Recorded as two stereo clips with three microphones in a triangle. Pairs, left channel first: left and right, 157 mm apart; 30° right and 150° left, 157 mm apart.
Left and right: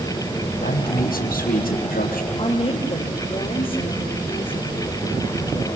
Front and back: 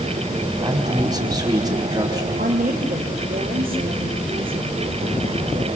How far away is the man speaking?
About 4.5 m.